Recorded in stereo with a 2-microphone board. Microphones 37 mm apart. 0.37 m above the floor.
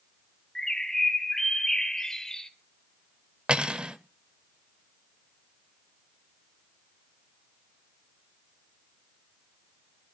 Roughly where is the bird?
Centre.